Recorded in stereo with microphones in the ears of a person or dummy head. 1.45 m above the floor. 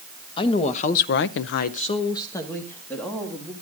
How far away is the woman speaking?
About 1.4 m.